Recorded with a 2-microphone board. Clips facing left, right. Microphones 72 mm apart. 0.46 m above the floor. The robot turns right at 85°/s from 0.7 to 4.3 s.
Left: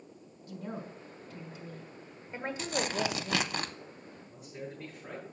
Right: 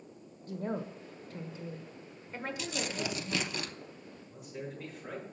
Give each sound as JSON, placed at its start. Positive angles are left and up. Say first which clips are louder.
{"t": 0.5, "sound": "a woman speaking", "louder": "right 5 dB", "azimuth_deg": -115, "distance_m": 1.2}
{"t": 2.6, "sound": "tearing paper", "louder": "left 6 dB", "azimuth_deg": 40, "distance_m": 0.6}
{"t": 4.3, "sound": "a man speaking", "louder": "right 1 dB", "side_deg": 0, "distance_m": 6.5}